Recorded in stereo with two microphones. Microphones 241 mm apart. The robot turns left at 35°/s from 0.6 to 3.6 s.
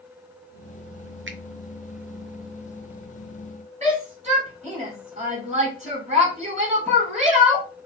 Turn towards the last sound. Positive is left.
turn(degrees=-30)  # may be behind; listen again after turning